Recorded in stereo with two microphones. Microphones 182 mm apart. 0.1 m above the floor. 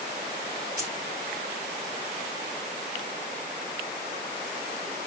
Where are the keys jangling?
50° right (ahead or behind), 1.6 m.